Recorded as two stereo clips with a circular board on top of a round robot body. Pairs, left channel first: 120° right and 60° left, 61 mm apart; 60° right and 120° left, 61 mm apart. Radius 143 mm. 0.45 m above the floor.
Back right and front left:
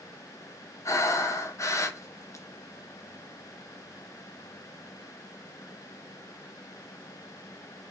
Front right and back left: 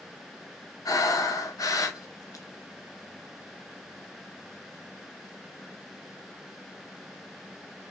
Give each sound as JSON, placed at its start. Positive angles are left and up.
{"t": 0.8, "sound": "breathing", "azimuth_deg": -80, "distance_m": 0.5}